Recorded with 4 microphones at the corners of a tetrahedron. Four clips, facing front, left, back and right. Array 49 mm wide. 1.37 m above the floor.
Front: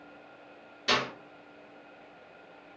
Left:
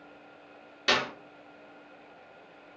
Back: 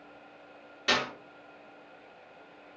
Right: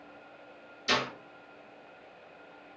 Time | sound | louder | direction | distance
0.9 | a clap | left 3 dB, even | 105° left | 1.7 m